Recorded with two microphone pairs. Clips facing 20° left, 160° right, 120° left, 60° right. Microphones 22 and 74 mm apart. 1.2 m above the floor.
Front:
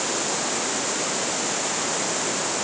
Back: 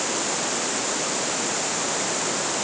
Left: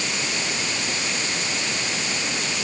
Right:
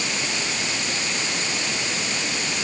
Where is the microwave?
No microwave in this recording.